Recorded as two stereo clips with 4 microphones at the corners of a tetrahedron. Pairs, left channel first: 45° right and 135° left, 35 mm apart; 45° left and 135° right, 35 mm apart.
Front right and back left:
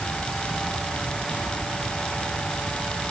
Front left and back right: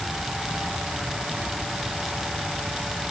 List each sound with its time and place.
Only background noise.